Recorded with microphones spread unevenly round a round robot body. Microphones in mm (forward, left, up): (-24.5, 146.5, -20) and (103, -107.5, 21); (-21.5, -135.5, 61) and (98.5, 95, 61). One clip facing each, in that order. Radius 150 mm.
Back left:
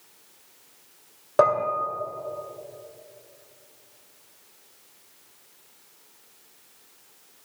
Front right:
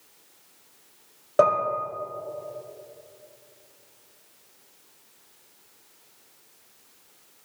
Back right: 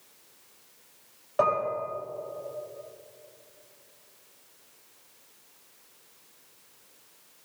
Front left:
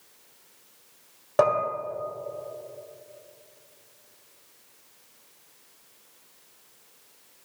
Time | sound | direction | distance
1.4 | dishes clattering | 35° left | 1.9 m